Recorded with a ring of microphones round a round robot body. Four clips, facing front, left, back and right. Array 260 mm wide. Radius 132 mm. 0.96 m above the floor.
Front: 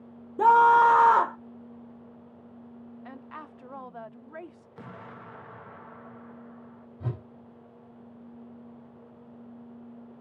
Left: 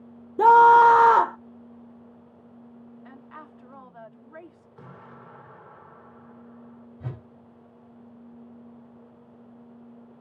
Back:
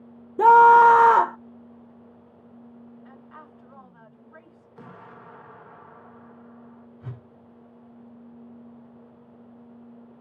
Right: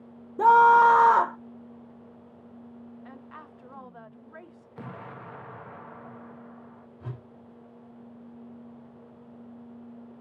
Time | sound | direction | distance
0.4 | a scream | 140° left | 0.6 m
3.0 | a woman speaking | straight ahead | 0.9 m
4.8 | an explosion | 80° right | 0.7 m
7.0 | a whoosh | 25° left | 1.3 m